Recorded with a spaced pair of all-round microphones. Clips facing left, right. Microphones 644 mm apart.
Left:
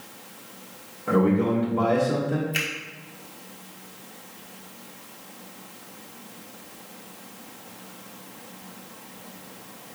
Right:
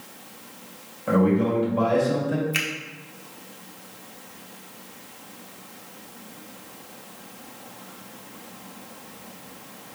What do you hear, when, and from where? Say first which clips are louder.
1.1 s a man speaking: right 1 dB; 10° right (ahead or behind), 1.5 m
2.5 s a finger snap: even; 35° right (ahead or behind), 0.8 m